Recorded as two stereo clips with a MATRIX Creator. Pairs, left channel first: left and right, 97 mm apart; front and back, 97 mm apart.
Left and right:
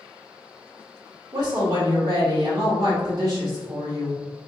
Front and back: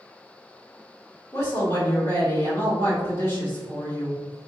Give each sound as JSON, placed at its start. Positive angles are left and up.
{"t": 1.3, "sound": "a woman speaking", "azimuth_deg": -50, "distance_m": 1.7}